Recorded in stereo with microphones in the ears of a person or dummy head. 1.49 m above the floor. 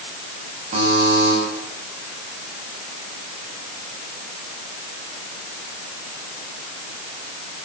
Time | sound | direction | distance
0.7 | a buzzer | 35° right (ahead or behind) | 7.5 m